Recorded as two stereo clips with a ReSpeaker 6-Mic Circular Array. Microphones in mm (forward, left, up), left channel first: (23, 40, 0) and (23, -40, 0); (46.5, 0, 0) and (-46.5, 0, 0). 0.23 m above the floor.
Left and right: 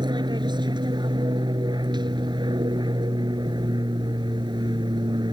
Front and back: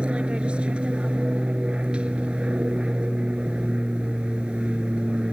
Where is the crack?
I don't hear a crack.